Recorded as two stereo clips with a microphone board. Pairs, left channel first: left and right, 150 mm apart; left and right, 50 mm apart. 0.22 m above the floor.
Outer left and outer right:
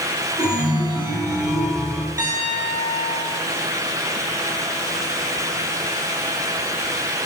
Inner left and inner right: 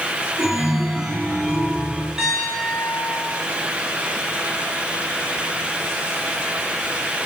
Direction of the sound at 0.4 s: 5° right (ahead or behind).